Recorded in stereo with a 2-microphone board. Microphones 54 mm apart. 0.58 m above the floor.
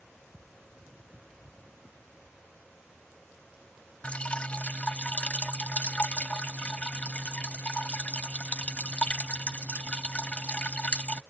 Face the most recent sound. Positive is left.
turn(degrees=25)  # may be behind; listen again after turning